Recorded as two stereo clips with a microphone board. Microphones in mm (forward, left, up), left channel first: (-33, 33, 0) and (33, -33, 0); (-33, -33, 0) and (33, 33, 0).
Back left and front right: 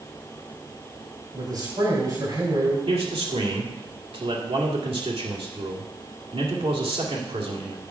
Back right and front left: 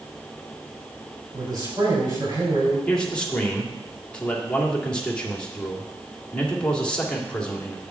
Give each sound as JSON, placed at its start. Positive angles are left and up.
{"t": 1.3, "sound": "a man speaking", "azimuth_deg": 0, "distance_m": 4.5}
{"t": 2.9, "sound": "a man speaking", "azimuth_deg": -55, "distance_m": 1.9}